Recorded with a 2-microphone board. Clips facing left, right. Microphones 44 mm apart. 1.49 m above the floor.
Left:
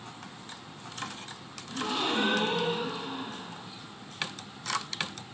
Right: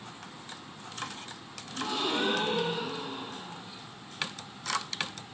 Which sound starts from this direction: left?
A gasp, at 1.7 s.